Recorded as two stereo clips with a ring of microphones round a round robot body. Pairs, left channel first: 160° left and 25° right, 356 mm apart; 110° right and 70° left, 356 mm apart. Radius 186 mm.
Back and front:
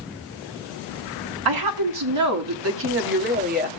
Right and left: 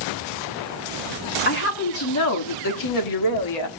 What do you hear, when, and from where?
1.4 s a woman speaking: 50° right, 1.8 m; by 3.7 s 90° right, 2 m